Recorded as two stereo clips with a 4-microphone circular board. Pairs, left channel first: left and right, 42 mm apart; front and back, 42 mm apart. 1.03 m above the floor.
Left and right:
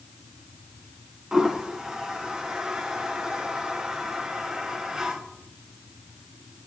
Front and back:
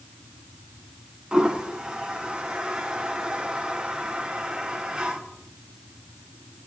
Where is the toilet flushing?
145° right, 0.6 m.